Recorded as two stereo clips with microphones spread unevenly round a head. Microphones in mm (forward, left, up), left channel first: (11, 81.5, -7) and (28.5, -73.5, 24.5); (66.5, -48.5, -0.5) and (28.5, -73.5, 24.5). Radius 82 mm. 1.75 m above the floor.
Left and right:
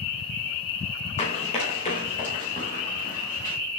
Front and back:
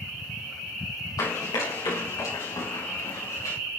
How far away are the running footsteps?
About 5 m.